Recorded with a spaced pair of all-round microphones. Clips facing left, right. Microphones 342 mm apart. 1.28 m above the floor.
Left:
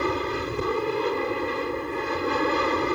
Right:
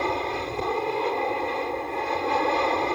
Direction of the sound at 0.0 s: 20° left (ahead or behind).